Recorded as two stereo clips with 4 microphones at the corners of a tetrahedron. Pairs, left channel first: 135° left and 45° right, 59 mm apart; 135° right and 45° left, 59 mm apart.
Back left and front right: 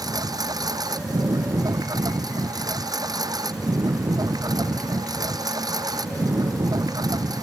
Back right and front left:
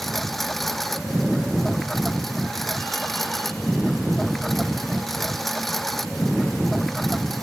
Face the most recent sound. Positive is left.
turn(degrees=-50)